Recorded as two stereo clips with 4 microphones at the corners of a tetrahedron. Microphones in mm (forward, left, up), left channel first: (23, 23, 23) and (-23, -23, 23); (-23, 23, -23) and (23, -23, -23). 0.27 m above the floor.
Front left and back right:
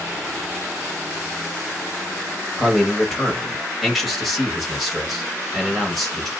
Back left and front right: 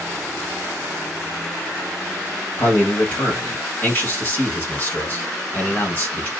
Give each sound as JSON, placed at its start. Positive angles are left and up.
{"t": 2.6, "sound": "a man speaking", "azimuth_deg": 135, "distance_m": 1.6}